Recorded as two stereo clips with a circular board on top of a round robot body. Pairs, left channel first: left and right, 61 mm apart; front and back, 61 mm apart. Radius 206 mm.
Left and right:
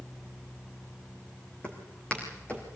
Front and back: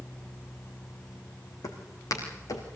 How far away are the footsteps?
About 3 m.